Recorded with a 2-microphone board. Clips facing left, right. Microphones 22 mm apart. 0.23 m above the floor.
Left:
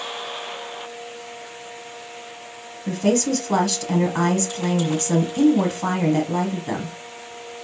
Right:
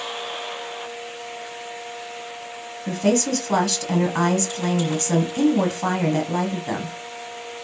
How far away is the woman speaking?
About 1.3 m.